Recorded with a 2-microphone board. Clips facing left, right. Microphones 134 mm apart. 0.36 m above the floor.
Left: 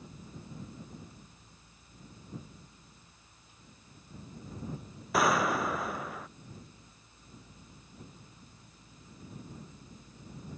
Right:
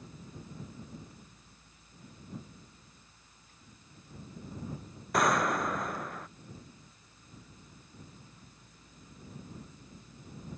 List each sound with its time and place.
5.1 s a gunshot: 5° left (ahead or behind)